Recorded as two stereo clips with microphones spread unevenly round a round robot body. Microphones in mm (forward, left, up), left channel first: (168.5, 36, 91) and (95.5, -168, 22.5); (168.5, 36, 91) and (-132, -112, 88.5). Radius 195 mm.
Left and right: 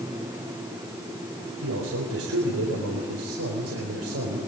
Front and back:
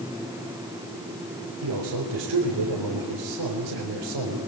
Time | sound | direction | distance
1.6 | a man speaking | 125° right | 4 m